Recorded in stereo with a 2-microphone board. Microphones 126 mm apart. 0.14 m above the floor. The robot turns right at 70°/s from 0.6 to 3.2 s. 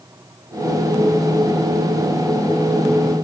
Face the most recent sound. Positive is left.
No sound to turn to.